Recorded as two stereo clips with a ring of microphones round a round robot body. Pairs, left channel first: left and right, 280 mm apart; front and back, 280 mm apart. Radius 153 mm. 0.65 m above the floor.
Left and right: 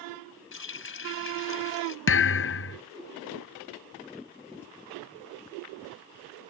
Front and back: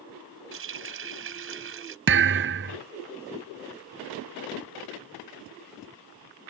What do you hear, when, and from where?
0.5 s a running tap: 135° left
2.1 s a thud: 135° left